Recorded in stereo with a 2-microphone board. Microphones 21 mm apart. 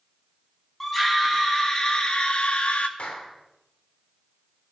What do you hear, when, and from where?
0.8 s a scream: 10° left (ahead or behind), 2.5 m; by 2.9 s 75° left (ahead or behind), 1.9 m
3.0 s a clap: 75° left (ahead or behind), 2.5 m